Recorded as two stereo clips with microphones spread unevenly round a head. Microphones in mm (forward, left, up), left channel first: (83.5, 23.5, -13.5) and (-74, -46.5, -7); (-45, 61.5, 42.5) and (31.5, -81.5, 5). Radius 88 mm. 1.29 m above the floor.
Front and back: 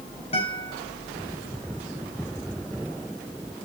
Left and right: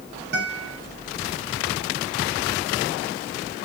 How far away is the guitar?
About 4.5 m.